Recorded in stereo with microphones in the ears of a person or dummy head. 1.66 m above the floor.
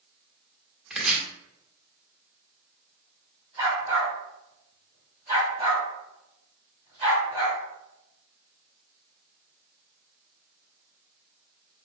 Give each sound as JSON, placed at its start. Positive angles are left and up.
{"t": 0.9, "sound": "chopping", "side_deg": -5, "distance_m": 0.8}
{"t": 3.6, "sound": "a dog barking", "side_deg": -15, "distance_m": 1.8}